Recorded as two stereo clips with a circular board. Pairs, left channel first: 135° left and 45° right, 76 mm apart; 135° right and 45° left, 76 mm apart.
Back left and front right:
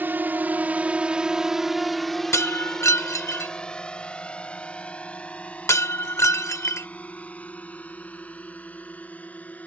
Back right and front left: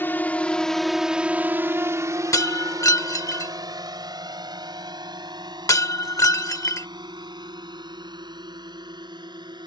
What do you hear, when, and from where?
0.0 s a drone: 90° right; by 9.7 s 65° left
2.3 s breaking glass: 175° right